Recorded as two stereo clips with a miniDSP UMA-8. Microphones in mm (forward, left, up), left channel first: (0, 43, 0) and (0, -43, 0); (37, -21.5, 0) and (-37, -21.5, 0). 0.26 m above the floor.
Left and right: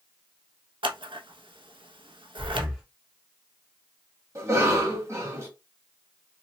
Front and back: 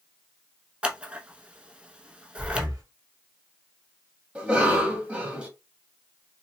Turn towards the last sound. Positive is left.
turn(degrees=-115)